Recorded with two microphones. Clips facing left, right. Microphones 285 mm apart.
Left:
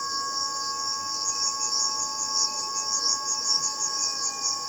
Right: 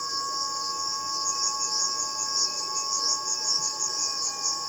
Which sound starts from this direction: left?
An insect, at 0.0 s.